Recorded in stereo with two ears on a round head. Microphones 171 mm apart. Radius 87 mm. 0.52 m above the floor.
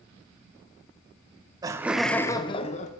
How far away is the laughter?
About 0.6 m.